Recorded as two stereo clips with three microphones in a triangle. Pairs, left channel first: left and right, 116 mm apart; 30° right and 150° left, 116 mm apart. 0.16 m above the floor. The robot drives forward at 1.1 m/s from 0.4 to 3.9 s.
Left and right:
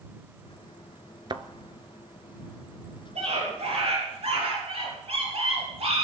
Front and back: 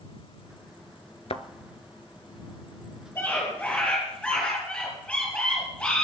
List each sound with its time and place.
1.3 s a thud: 45° right, 0.8 m; by 1.4 s 55° right, 0.7 m
3.1 s a scream: 100° right, 4.5 m; by 6.0 s 110° right, 4.5 m